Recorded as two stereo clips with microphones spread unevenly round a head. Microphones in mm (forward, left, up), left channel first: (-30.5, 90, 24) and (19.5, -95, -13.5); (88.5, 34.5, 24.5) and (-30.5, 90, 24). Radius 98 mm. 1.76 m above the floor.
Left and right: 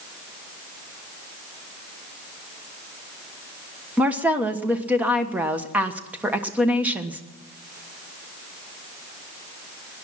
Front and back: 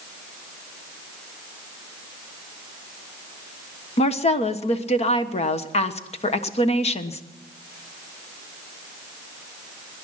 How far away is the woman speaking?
About 1.3 m.